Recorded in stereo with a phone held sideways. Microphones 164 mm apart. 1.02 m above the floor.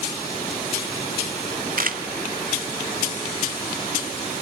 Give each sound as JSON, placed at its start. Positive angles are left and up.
{"t": 1.8, "sound": "a camera shutter", "side_deg": -60, "distance_m": 1.2}